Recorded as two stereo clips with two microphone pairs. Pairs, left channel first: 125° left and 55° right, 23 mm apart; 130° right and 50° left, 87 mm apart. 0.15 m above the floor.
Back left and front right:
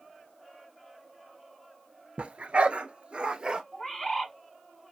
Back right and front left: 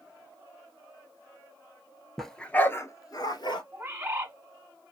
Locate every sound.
2.2 s a dog barking: 40° right, 0.8 m; by 3.6 s 105° right, 1.0 m
3.7 s a bird: 80° left, 1.2 m